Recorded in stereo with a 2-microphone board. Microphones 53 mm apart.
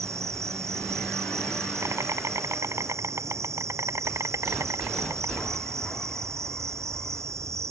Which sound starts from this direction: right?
An insect, at 0.0 s.